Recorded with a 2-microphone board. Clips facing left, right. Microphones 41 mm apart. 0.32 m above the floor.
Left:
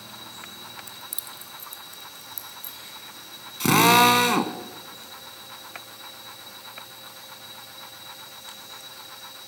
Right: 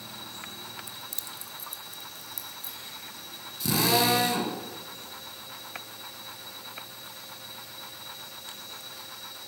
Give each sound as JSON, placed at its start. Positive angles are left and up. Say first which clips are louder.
{"t": 0.9, "sound": "keys jangling", "louder": "left 1 dB", "side_deg": -20, "distance_m": 0.6}
{"t": 3.6, "sound": "a drill", "louder": "left 8 dB", "side_deg": 75, "distance_m": 1.0}